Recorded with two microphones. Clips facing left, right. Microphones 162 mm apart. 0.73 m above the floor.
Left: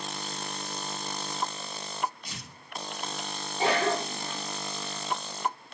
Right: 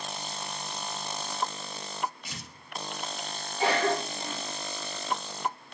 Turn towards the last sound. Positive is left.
turn(degrees=25)  # may be behind; listen again after turning